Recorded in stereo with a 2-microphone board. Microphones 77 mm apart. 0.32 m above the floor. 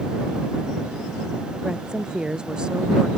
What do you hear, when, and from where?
1.6 s a woman speaking: 10° right (ahead or behind)